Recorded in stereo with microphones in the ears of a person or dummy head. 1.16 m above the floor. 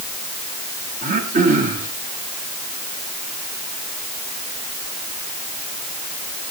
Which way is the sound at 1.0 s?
40° right (ahead or behind).